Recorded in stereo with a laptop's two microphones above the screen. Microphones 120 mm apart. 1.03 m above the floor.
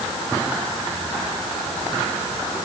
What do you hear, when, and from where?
Only background noise.